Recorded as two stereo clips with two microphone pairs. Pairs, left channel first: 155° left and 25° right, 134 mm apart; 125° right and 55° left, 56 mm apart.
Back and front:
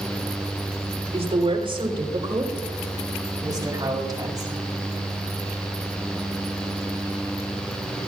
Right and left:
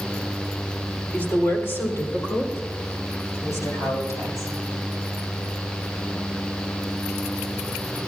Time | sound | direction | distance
1.1 | a woman speaking | 65° right | 3 m